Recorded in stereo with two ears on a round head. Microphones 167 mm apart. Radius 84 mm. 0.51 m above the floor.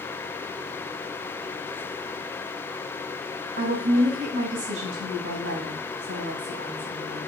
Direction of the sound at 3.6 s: 70° right (ahead or behind).